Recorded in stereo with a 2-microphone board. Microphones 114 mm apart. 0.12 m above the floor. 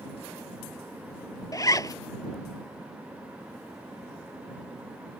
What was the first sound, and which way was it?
A zipper, 30° left (ahead or behind).